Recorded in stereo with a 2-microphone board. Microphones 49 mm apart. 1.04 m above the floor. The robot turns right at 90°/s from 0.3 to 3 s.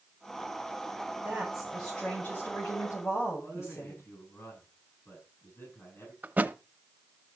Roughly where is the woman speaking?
Ahead right.